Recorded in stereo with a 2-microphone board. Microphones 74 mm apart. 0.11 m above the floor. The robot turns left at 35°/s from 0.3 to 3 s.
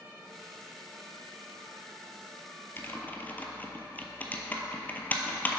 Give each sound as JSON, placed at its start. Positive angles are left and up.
{"t": 2.8, "sound": "typing on a keyboard", "side_deg": 30, "distance_m": 0.6}